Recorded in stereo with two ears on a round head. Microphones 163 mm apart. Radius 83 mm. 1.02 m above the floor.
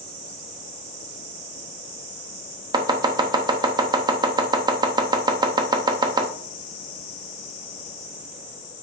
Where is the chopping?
25° right (ahead or behind), 0.8 m.